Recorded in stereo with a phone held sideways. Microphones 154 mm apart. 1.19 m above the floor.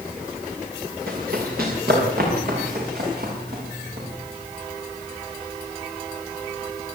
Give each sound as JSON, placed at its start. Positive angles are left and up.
{"t": 1.1, "sound": "running footsteps", "side_deg": -75, "distance_m": 8.5}